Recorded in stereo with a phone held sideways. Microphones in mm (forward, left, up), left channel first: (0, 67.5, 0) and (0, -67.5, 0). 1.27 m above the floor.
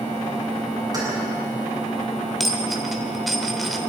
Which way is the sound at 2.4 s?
Centre (ahead or behind).